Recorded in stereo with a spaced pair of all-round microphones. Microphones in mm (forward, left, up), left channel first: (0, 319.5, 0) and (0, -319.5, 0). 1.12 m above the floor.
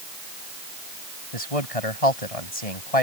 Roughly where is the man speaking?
Left.